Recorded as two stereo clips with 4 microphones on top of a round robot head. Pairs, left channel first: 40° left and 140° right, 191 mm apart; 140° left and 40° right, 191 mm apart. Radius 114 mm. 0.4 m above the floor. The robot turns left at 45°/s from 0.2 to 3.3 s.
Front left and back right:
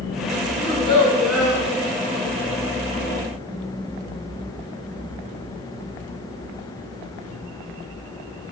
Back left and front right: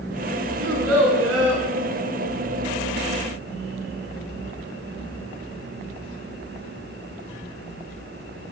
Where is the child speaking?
15° right, 3 m; by 1.6 s 65° right, 3 m.